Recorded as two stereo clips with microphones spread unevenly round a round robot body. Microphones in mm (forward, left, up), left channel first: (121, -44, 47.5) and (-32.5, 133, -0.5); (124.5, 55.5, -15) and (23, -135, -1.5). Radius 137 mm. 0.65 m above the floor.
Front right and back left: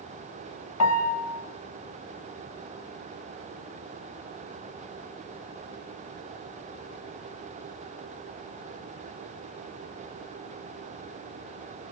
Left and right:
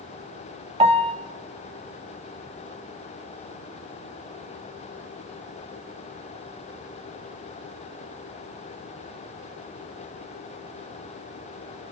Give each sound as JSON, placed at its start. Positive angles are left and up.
{"t": 0.8, "sound": "a piano", "azimuth_deg": -55, "distance_m": 0.9}